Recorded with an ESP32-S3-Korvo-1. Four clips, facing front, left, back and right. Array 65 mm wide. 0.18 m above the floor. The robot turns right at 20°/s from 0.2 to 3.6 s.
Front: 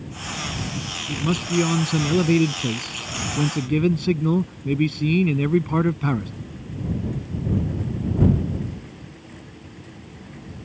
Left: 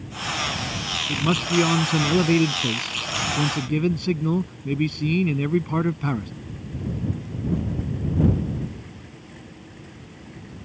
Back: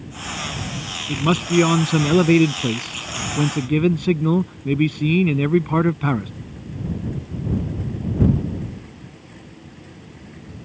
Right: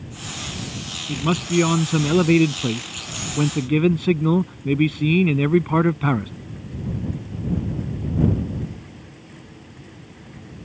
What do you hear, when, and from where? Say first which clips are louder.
1.1 s a man speaking: right 2 dB, back 5 dB; 170° right; by 6.3 s 120° right